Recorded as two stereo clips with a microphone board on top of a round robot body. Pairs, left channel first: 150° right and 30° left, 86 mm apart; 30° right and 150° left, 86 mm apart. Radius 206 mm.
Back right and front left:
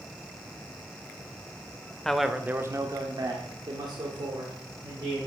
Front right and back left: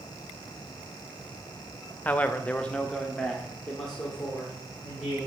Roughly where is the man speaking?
Right.